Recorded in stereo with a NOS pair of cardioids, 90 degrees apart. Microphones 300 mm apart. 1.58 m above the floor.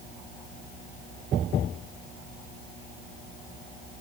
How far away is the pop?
I don't hear a pop.